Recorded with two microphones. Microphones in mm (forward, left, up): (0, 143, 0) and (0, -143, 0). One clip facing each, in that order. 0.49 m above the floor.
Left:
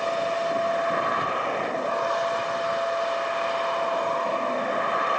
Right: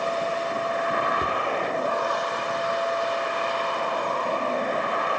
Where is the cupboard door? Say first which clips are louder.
Right 1 dB; 35° right (ahead or behind), 1.2 m.